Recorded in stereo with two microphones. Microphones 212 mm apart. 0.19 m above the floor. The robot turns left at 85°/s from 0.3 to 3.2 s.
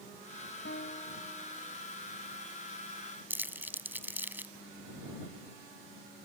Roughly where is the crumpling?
Centre.